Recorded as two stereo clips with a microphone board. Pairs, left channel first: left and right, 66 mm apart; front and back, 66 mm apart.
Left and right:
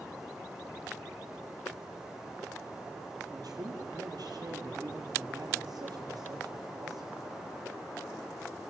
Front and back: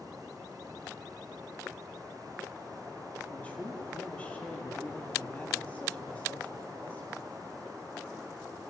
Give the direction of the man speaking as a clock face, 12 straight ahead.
2 o'clock.